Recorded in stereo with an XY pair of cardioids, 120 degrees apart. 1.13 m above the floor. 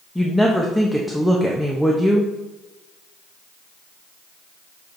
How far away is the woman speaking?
About 0.8 m.